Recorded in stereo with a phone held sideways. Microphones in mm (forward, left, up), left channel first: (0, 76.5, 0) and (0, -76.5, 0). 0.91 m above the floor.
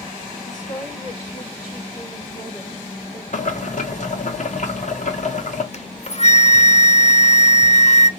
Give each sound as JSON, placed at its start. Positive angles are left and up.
{"t": 0.5, "sound": "a woman speaking", "side_deg": 55, "distance_m": 2.5}
{"t": 3.3, "sound": "boiling", "side_deg": 55, "distance_m": 1.1}
{"t": 5.7, "sound": "a flute", "side_deg": 50, "distance_m": 0.5}